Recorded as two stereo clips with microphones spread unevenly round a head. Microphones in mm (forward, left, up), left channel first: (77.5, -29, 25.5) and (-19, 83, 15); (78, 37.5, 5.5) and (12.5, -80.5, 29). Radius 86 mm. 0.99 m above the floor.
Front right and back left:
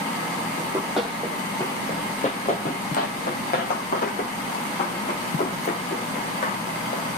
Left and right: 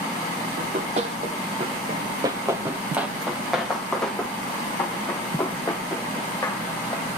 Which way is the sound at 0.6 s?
145° right.